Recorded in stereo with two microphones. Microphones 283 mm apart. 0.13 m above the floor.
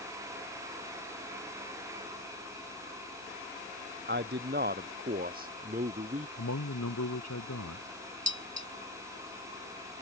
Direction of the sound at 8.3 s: 75° right (ahead or behind).